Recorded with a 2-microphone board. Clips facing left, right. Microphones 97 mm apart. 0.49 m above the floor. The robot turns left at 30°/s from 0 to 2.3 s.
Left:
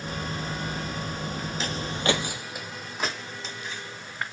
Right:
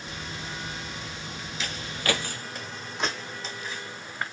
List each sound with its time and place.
1.6 s footsteps: 35° left (ahead or behind), 0.5 m; by 4.2 s 5° right (ahead or behind), 2.0 m